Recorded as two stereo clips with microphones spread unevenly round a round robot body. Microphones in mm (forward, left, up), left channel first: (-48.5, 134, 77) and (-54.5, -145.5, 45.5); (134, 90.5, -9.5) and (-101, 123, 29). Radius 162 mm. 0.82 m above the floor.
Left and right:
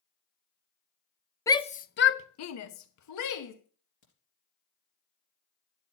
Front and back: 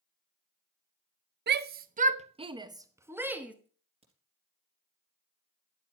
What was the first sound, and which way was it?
A shout, 170° left.